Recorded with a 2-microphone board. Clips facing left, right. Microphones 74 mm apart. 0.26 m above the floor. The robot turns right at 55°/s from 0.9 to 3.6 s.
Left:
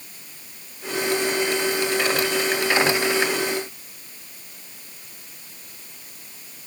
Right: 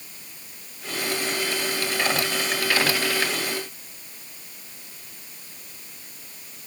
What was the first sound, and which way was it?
Only background noise.